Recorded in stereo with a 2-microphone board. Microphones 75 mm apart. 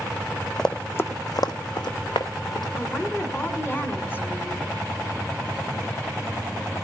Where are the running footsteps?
5° left (ahead or behind), 0.8 m; by 2.7 s 75° left (ahead or behind), 1.6 m.